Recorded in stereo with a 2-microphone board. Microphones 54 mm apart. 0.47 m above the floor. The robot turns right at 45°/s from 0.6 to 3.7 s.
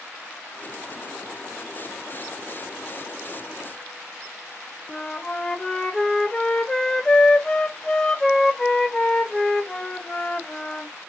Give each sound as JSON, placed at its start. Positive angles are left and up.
{"t": 4.9, "sound": "a flute", "side_deg": 10, "distance_m": 0.7}